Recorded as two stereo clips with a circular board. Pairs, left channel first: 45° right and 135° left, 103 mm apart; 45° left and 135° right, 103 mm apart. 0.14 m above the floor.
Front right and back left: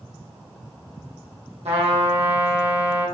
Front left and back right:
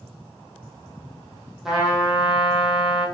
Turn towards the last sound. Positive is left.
turn(degrees=140)